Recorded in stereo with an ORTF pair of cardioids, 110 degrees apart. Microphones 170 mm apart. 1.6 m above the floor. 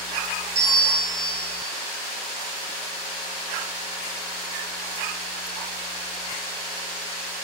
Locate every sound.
0.6 s a bell: 45° right, 3 m